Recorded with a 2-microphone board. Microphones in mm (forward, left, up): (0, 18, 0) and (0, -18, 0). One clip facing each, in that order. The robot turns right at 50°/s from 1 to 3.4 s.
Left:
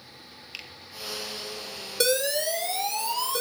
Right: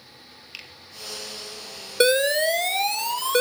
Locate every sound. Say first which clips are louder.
0.5 s a finger snap: even; centre (ahead or behind), 3 m
2.0 s an alarm: right 6 dB; 135° right, 1.8 m; by 3.4 s 65° right, 1.8 m